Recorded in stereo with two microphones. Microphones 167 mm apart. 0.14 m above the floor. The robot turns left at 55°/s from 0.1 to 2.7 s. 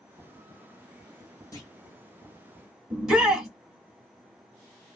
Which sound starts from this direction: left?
A clunk, at 1.5 s.